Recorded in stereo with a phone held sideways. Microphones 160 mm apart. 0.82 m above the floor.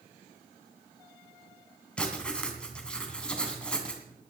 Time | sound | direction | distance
2.0 | writing | 5° left (ahead or behind) | 2.5 m